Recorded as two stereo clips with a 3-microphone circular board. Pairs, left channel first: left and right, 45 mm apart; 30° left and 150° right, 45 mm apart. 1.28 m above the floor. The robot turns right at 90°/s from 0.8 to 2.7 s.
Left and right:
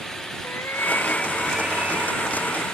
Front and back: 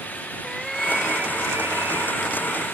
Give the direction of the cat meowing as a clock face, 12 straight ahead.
8 o'clock.